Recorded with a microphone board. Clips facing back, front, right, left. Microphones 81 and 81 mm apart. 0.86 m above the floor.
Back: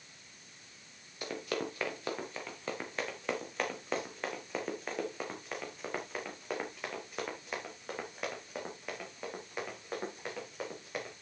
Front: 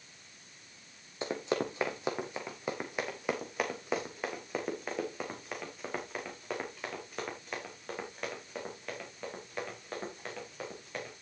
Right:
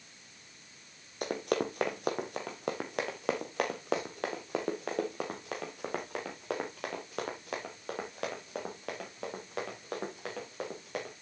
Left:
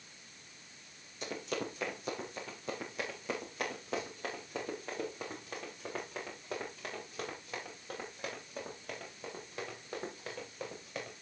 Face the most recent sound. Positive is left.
turn(degrees=-100)